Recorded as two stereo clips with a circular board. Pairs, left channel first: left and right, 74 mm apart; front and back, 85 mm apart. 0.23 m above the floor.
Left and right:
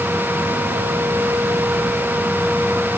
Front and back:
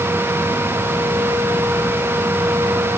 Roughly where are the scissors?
I don't hear scissors.